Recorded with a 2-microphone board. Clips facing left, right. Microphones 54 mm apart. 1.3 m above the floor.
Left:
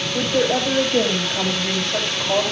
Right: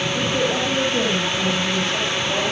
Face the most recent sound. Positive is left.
turn(degrees=60)  # may be behind; listen again after turning